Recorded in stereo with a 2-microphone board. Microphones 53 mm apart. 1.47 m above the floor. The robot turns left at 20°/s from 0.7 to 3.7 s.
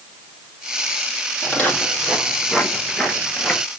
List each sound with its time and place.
1.4 s footsteps: 30° left (ahead or behind), 2.5 m; by 3.6 s 15° left (ahead or behind), 1.5 m